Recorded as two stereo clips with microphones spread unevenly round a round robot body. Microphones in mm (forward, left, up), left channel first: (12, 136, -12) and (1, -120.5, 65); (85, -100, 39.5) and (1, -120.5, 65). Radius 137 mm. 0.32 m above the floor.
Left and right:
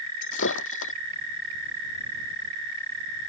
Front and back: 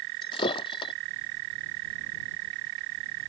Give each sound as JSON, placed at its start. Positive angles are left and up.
{"t": 0.2, "sound": "breaking glass", "azimuth_deg": 50}